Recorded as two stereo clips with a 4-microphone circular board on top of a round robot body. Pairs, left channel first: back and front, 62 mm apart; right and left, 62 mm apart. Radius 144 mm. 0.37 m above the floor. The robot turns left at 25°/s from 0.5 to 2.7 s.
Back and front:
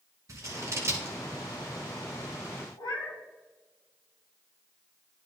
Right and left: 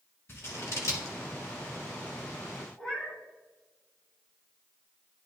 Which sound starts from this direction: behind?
A cat meowing, at 2.8 s.